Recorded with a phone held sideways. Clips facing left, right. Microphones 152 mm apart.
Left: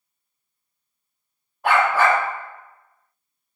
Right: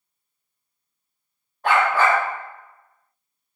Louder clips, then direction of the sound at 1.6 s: Left 1 dB; 5° left (ahead or behind).